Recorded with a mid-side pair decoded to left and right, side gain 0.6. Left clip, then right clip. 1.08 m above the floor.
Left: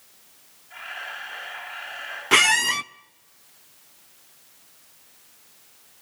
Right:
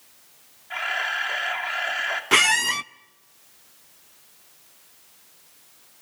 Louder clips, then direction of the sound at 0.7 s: Right 9 dB; 60° right.